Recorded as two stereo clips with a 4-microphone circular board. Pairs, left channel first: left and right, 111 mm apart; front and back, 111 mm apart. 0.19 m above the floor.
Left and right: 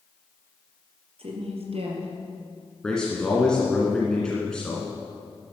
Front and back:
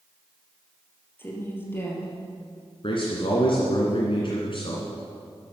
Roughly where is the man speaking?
Ahead.